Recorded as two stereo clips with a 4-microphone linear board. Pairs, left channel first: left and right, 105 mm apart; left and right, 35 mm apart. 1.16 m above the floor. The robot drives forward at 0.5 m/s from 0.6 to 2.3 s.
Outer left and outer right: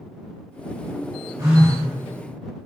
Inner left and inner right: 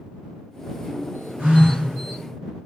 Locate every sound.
1.4 s a phone buzzing: 35° right (ahead or behind), 0.9 m; by 1.8 s 30° right (ahead or behind), 1.1 m